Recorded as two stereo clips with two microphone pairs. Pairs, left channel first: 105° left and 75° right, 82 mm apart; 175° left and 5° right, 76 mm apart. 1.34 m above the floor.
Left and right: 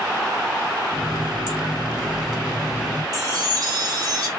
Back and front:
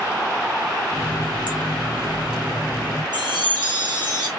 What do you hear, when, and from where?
0.9 s a running tap: 10° left, 1.9 m
3.1 s a chime: 30° right, 1.1 m